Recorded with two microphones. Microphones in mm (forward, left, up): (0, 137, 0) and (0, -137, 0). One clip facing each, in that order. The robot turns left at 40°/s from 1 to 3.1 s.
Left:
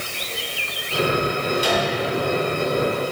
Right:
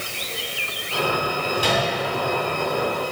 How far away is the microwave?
About 3.5 m.